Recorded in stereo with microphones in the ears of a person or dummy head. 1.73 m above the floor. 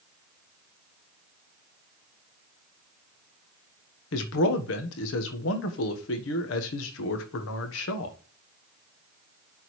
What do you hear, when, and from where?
4.1 s a man speaking: 75° left (ahead or behind), 1.3 m